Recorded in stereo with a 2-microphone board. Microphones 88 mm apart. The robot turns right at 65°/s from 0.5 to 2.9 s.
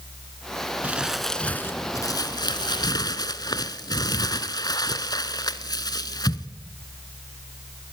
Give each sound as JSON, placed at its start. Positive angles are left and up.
{"t": 0.8, "sound": "crumpling", "azimuth_deg": -20, "distance_m": 1.3}